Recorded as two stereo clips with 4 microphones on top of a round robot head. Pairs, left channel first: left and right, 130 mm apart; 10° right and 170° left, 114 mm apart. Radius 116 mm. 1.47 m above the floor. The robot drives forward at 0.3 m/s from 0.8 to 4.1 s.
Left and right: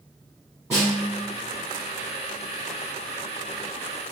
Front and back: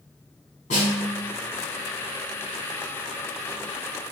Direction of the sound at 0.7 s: 10° right.